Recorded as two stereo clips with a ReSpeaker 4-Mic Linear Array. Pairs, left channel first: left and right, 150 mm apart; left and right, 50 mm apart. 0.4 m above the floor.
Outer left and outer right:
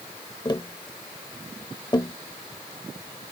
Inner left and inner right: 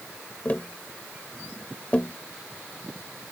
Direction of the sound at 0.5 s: 30° left (ahead or behind).